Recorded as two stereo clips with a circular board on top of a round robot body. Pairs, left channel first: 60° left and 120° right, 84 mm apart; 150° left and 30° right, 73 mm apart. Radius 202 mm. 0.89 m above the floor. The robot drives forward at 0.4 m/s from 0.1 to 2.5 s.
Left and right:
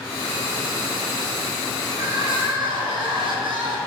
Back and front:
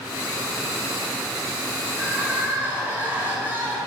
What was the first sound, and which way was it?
Crying, 95° right.